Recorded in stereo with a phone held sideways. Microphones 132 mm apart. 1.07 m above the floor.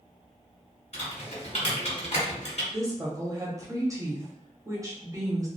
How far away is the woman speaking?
About 0.8 m.